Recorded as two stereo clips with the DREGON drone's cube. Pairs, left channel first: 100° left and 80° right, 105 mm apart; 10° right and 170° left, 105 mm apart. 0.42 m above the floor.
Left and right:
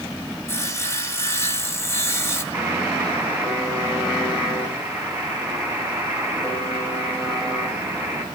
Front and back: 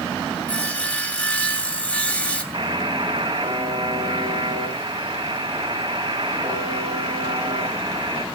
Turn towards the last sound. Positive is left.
turn(degrees=-145)